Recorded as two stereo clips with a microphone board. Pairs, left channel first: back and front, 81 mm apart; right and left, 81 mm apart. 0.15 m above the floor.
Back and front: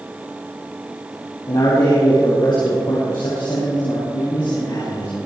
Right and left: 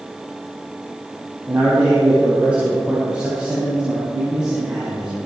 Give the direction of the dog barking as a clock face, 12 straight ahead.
No dog barking in this recording.